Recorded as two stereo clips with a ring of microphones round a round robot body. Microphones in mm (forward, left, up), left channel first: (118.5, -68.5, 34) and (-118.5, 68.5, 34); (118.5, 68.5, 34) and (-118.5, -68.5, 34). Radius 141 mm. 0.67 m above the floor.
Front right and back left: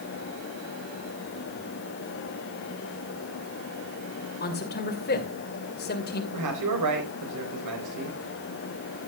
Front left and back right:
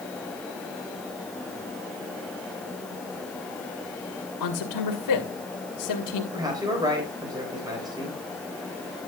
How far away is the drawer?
I don't hear a drawer.